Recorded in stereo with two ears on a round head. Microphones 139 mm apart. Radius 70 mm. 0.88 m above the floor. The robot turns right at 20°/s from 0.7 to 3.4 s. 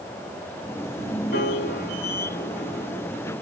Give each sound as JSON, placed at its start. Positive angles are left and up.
{"t": 1.3, "sound": "a piano", "azimuth_deg": 95, "distance_m": 4.0}